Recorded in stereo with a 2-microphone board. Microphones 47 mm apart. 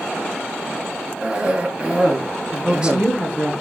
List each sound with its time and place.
1.2 s a cough: 25° right (ahead or behind), 4.5 m
2.5 s a woman speaking: 20° right (ahead or behind), 5.5 m